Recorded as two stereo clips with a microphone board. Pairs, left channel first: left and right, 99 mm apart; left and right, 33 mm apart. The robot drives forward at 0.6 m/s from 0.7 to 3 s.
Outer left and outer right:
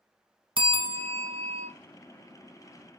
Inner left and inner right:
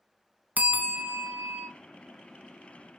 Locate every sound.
0.6 s a bell: 60° right (ahead or behind), 0.9 m; by 1.7 s 75° right (ahead or behind), 0.8 m